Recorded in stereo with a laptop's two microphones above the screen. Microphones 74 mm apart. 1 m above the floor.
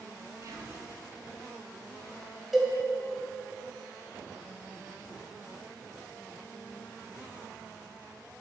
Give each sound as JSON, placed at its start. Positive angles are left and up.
{"t": 0.4, "sound": "whispering", "side_deg": -50, "distance_m": 1.0}
{"t": 2.5, "sound": "a cowbell", "side_deg": -5, "distance_m": 0.8}